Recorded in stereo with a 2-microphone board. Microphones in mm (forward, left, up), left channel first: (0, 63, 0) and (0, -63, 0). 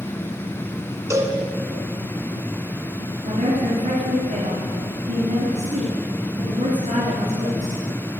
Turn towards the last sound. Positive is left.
turn(degrees=-65)  # may be behind; listen again after turning